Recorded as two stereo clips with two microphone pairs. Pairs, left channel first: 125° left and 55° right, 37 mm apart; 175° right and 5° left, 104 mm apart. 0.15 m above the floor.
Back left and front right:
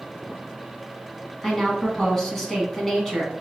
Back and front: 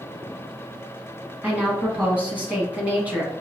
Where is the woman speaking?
60° left, 1.4 m.